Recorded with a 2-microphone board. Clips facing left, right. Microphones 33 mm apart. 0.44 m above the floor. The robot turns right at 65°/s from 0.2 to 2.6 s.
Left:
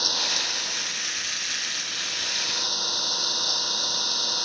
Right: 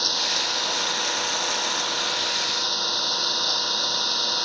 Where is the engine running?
170° right; by 4.5 s 15° right.